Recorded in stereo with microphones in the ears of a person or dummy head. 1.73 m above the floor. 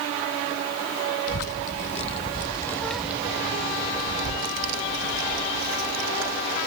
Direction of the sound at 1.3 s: 50° left (ahead or behind).